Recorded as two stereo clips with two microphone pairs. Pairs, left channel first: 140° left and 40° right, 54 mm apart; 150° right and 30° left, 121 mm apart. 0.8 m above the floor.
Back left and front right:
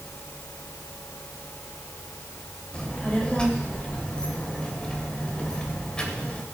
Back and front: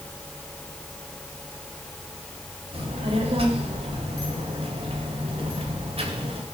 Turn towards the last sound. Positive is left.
turn(degrees=65)